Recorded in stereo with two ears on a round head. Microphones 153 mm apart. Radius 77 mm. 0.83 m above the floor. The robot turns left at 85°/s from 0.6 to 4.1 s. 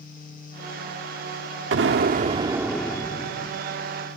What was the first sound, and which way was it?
An explosion, 90° right.